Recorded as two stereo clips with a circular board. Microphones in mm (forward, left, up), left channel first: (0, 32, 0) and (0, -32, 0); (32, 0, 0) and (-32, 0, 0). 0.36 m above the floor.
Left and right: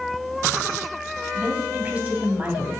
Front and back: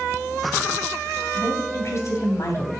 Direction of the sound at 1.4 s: 25° right.